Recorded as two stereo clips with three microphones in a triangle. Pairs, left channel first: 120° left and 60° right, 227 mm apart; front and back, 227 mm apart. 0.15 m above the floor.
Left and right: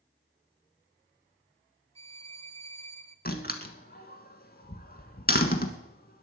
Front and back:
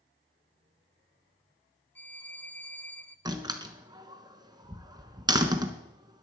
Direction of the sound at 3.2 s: 120° left.